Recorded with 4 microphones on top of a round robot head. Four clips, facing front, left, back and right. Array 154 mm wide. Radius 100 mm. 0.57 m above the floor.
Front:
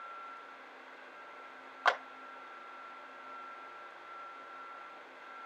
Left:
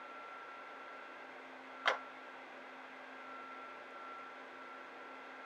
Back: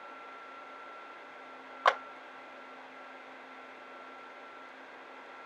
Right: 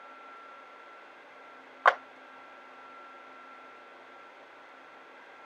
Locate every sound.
1.9 s a clap: 105° right, 1.2 m